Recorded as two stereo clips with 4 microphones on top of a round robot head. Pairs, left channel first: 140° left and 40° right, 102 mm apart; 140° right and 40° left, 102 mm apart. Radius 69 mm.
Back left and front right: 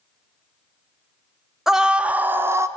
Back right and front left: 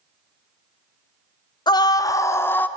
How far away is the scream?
About 1.3 m.